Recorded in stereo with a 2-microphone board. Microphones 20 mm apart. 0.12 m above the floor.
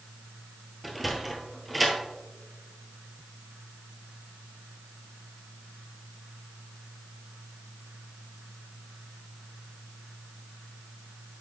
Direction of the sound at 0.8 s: 5° right (ahead or behind).